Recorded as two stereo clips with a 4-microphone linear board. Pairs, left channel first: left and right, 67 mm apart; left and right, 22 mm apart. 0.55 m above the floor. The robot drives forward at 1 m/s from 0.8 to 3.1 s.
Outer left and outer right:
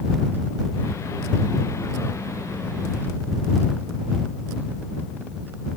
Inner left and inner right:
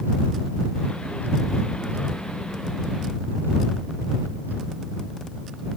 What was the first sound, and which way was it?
Only background noise.